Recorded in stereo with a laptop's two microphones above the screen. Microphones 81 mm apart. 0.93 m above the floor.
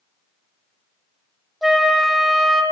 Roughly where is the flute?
Centre.